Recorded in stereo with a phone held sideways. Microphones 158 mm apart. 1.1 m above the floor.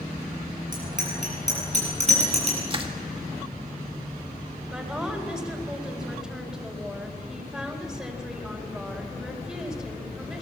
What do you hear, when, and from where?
0.7 s a bicycle bell: 55° right (ahead or behind), 8.5 m; by 2.6 s 40° right (ahead or behind), 8.5 m
2.7 s crushing: 35° right (ahead or behind), 1.9 m
4.7 s a woman speaking: 5° right (ahead or behind), 4 m